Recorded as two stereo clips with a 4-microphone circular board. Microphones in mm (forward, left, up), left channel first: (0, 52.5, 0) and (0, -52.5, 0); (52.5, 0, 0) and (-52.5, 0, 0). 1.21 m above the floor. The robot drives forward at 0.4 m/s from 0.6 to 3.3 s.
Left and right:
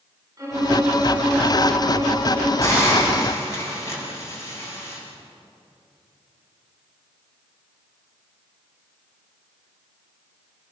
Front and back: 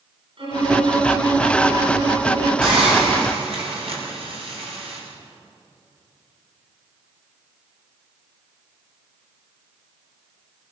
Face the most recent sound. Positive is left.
turn(degrees=150)